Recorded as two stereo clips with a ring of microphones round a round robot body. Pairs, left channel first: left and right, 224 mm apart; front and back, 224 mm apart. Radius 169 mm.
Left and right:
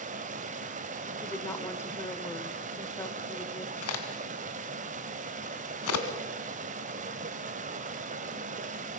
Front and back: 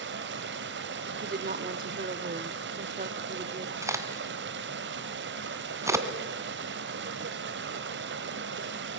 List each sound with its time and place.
0.0 s running water: 145° right, 1.4 m
1.2 s a woman speaking: 165° left, 1.4 m
3.8 s a crack: 100° left, 2.5 m